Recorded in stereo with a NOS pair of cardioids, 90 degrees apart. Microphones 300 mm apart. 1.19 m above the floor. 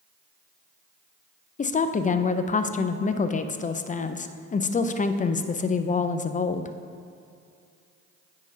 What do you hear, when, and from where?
1.6 s a woman speaking: 25° left, 0.5 m